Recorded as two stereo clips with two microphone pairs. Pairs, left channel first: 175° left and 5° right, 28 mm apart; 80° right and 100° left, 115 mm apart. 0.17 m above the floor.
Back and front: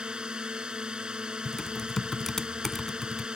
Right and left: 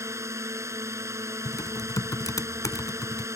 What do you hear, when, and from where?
0.0 s a drone: 45° left
1.4 s typing on a keyboard: 110° right